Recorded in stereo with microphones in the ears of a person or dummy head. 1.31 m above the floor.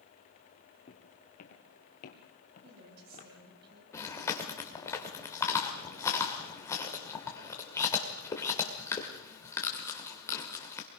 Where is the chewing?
20° left (ahead or behind), 2 m.